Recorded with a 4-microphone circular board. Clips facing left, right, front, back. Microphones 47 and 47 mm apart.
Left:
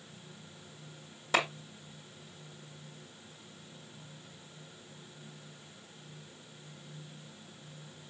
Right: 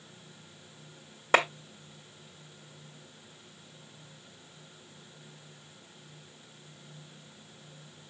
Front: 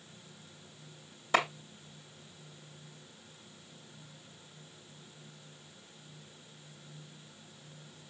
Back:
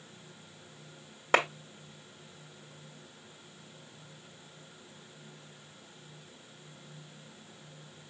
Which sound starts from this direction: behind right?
A clap, at 1.3 s.